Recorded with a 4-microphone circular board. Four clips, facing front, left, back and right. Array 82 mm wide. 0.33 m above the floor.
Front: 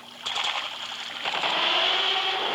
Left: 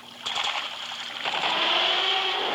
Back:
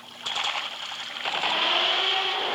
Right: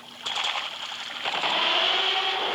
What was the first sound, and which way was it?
Only background noise.